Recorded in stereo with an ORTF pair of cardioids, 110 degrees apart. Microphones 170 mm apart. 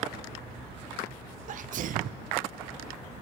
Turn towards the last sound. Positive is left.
turn(degrees=-50)